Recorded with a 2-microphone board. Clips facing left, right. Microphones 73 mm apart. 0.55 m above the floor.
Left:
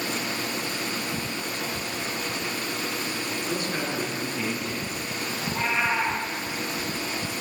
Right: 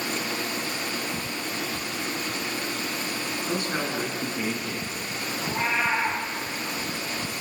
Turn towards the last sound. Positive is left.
turn(degrees=-25)  # may be behind; listen again after turning